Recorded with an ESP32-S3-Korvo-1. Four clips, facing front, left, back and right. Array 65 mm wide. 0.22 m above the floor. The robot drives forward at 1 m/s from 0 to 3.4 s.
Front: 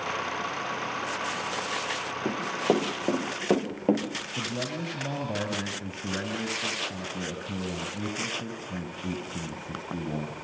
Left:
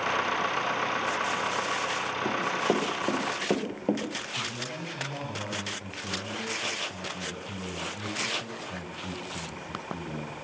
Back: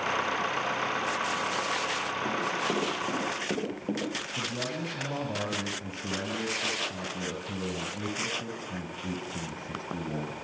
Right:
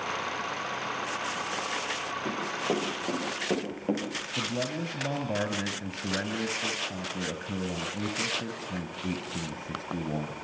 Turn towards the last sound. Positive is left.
turn(degrees=-75)